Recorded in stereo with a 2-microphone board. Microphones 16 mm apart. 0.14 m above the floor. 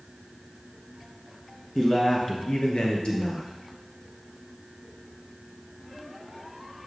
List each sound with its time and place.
1.8 s a man speaking: 30° left (ahead or behind), 1.5 m; by 3.5 s 60° left (ahead or behind), 2.5 m